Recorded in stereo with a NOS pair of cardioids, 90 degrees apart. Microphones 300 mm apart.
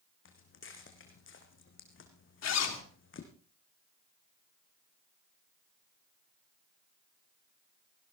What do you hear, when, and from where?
0.2 s footsteps: 45° left, 3.5 m
2.4 s a zipper: 60° left, 3 m